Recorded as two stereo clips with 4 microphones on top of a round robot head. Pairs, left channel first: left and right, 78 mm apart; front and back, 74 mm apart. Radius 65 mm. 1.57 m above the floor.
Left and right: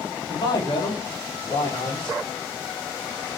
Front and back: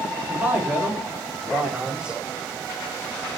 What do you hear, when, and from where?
0.3 s a man speaking: 115° left, 4 m; by 2.2 s 100° left, 5 m